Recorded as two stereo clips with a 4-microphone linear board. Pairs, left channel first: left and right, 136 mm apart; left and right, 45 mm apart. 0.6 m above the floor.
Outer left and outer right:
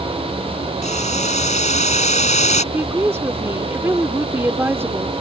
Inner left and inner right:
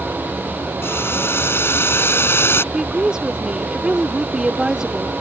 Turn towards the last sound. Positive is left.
turn(degrees=-15)  # may be behind; listen again after turning